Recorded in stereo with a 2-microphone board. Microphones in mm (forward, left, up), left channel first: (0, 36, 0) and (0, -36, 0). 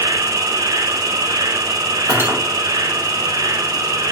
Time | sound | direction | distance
0.0 | an insect | 65° right (ahead or behind) | 0.8 m
2.1 | cutlery clinking | 30° right (ahead or behind) | 1.7 m